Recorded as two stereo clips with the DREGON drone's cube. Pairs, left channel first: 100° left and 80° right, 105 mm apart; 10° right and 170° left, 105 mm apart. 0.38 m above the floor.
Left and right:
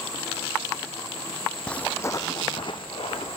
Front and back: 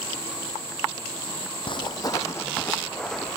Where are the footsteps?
20° left, 1.1 m; by 3.4 s 80° left, 1.8 m.